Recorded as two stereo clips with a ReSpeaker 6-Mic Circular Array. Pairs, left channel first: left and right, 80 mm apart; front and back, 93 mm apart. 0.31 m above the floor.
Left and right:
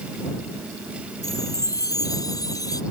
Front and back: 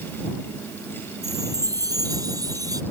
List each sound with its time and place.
1.2 s a chime: 130° left